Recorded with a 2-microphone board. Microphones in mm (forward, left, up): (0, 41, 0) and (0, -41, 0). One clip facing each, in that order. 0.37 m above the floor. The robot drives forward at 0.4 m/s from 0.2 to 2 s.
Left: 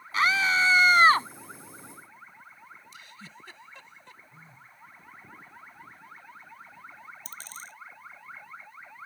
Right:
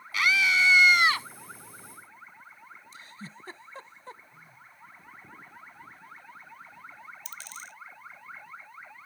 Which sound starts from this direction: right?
A giggle, at 2.9 s.